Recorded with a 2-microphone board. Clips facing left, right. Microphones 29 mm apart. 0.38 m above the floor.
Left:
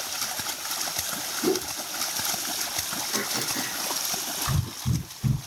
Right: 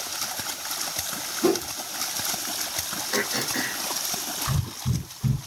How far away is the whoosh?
About 1.2 m.